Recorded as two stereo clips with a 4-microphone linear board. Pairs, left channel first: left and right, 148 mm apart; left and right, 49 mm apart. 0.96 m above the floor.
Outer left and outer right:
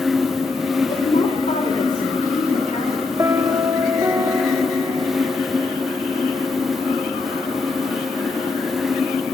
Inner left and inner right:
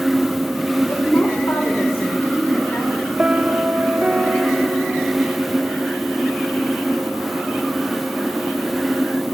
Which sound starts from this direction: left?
A woman speaking, at 0.9 s.